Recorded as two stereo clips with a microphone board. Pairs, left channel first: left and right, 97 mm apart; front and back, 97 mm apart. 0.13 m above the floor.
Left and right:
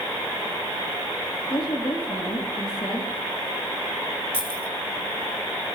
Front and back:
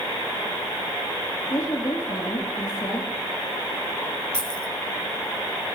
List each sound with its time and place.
1.5 s a woman speaking: 50° left, 3.5 m
4.3 s keys jangling: 75° right, 2 m